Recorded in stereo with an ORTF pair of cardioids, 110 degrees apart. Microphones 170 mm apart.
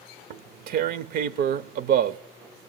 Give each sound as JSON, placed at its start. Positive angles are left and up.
{"t": 0.3, "sound": "tearing paper", "azimuth_deg": -65, "distance_m": 0.6}